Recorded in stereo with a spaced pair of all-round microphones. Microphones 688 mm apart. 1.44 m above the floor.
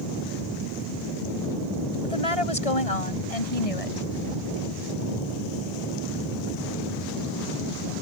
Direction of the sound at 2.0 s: 50° left (ahead or behind).